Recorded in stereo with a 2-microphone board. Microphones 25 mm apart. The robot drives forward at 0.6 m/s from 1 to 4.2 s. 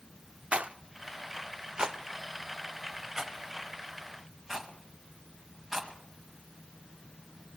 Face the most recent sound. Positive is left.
turn(degrees=-10)  # may be behind; listen again after turning